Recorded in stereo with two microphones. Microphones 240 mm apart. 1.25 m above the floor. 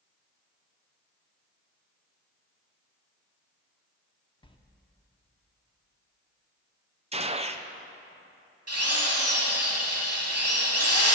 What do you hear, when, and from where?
4.4 s a sliding door: 20° left (ahead or behind), 0.8 m
7.1 s a gunshot: 25° right (ahead or behind), 0.5 m
8.7 s a drill: 85° right, 2.5 m